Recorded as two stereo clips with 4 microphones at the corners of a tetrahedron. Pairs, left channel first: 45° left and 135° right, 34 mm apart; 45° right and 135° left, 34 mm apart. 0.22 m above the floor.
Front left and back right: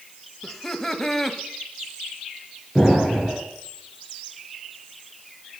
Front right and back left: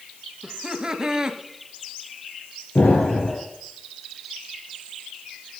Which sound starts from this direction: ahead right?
An explosion, at 2.8 s.